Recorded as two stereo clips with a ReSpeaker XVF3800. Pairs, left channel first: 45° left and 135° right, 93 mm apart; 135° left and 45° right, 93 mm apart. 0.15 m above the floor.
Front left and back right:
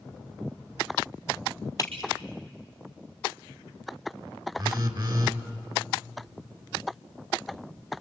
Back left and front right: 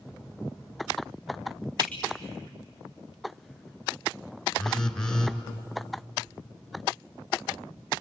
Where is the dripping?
5° right, 3 m.